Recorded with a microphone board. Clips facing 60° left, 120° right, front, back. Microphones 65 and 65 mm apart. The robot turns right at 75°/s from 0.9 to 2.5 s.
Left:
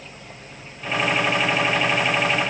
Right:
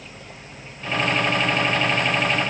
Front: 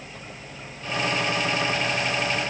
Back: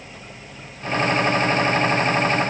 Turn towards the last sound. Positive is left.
No sound to turn to.